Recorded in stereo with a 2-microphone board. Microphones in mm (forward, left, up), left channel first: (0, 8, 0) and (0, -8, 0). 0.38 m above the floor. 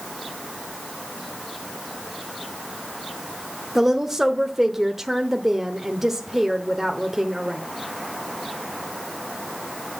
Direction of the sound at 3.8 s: 15° right (ahead or behind).